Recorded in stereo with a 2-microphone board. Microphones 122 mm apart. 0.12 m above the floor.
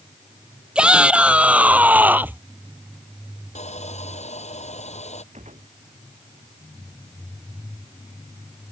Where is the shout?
10° right (ahead or behind); by 2.4 s 15° right (ahead or behind).